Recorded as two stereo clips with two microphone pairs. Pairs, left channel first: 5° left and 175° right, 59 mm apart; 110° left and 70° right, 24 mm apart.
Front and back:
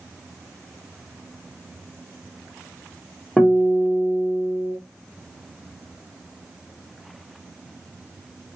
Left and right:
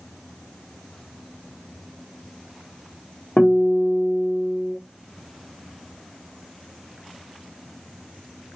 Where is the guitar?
80° left, 1.2 m.